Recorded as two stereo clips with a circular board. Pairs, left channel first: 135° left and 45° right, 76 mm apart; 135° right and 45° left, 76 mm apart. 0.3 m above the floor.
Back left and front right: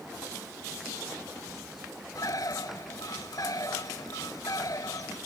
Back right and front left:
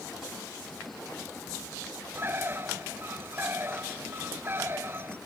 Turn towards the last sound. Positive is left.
turn(degrees=105)